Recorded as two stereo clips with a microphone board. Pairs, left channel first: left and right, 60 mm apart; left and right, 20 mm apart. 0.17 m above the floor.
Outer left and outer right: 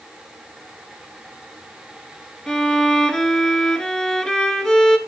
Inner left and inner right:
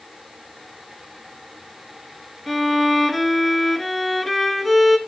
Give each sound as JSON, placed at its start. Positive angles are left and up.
{"t": 2.5, "sound": "a violin", "side_deg": 10, "distance_m": 0.8}